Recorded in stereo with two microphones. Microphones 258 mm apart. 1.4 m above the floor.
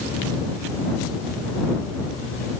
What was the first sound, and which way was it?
Only background noise.